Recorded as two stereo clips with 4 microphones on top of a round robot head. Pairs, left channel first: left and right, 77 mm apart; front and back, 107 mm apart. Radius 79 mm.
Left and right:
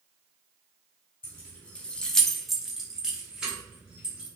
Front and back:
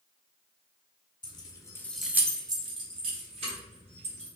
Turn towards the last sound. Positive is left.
turn(degrees=-170)